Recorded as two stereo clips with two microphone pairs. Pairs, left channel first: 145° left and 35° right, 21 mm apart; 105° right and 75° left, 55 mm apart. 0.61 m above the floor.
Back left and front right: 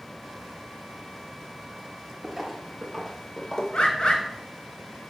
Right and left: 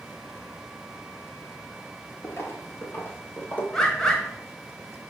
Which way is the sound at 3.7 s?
Straight behind.